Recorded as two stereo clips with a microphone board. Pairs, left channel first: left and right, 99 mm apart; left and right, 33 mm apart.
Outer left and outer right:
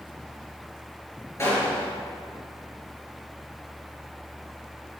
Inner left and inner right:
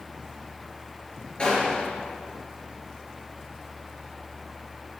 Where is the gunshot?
30° left (ahead or behind), 3.5 m.